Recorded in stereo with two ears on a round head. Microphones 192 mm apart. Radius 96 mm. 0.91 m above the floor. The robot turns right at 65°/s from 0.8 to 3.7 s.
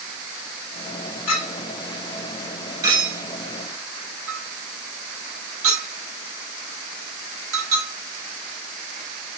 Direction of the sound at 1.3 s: 85° left.